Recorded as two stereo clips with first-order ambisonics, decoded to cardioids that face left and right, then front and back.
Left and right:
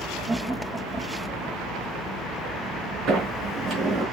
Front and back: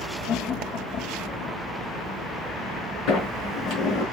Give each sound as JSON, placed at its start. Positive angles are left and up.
{"t": 0.3, "sound": "laughter", "azimuth_deg": -10, "distance_m": 0.8}
{"t": 3.1, "sound": "a sliding door", "azimuth_deg": -30, "distance_m": 6.0}